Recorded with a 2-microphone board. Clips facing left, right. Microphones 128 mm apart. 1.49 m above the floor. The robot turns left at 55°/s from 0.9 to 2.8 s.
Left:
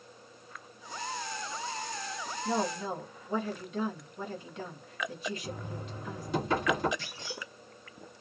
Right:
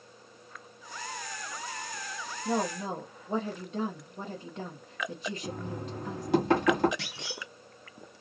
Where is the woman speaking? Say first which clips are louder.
Right 1 dB; 15° right (ahead or behind), 1.0 m; by 6.3 s 35° right (ahead or behind), 1.0 m.